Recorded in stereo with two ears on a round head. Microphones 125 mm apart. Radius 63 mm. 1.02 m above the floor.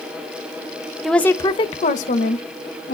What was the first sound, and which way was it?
A woman speaking, centre (ahead or behind).